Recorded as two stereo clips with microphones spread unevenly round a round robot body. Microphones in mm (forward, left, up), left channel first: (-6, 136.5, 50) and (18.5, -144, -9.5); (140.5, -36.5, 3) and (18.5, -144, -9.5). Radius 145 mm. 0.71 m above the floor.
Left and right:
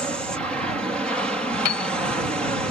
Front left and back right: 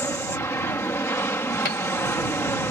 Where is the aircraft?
15° right.